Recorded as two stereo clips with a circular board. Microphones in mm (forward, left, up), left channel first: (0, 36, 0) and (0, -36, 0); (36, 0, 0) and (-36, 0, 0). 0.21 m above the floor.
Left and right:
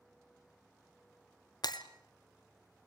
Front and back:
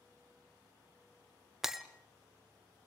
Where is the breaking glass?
95° left, 1.4 m.